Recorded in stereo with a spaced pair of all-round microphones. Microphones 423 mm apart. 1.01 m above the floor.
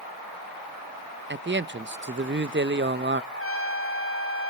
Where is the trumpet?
30° left (ahead or behind), 0.9 m.